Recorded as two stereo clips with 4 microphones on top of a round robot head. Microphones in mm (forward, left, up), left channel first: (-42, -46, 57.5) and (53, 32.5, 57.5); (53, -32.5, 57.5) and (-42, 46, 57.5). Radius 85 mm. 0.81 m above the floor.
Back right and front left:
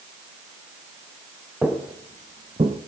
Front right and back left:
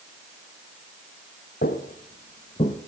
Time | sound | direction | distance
1.6 | footsteps | 45° right | 1.1 m